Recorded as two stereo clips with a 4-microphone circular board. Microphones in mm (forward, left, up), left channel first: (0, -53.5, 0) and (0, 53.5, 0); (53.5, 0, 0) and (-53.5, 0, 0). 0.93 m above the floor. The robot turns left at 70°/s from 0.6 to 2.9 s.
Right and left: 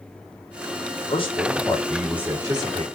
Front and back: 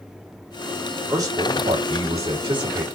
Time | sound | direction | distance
1.1 | a man speaking | 120° right | 2 m